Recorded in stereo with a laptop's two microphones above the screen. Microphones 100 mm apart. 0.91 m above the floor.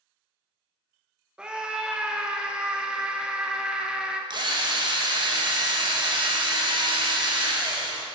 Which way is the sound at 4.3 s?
45° right (ahead or behind).